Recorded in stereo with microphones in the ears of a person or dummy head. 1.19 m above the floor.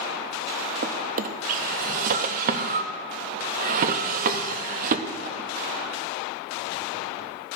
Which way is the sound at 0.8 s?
45° right (ahead or behind).